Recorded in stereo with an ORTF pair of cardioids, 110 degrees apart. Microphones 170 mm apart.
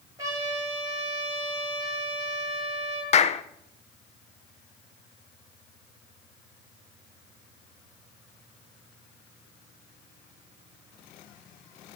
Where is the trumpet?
20° right, 9 m.